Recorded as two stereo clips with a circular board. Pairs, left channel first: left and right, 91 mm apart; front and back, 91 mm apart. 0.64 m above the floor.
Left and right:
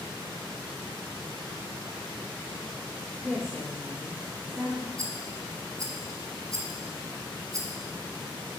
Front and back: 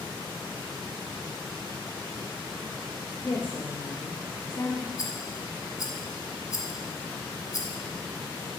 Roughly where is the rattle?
Ahead right.